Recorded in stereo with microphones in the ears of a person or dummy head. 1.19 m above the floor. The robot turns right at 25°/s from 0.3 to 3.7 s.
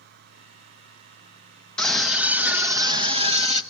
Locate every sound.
1.8 s a scream: 175° left, 1.2 m; by 3.6 s 140° right, 1.2 m